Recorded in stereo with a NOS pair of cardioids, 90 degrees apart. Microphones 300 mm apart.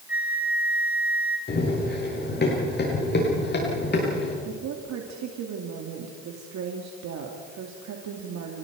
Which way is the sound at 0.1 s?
5° right.